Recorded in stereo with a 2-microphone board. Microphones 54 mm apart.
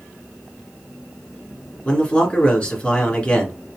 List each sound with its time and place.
1.9 s a man speaking: 20° left (ahead or behind), 1.5 m